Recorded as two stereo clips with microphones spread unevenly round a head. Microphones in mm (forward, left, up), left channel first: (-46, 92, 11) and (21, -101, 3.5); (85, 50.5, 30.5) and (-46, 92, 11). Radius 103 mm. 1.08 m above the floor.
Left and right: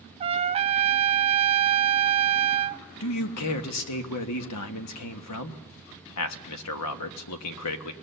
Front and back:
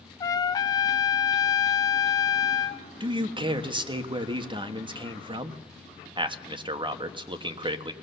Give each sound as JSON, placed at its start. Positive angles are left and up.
{"t": 0.2, "sound": "a trumpet", "azimuth_deg": -70, "distance_m": 0.6}
{"t": 3.0, "sound": "a man speaking", "azimuth_deg": 110, "distance_m": 1.4}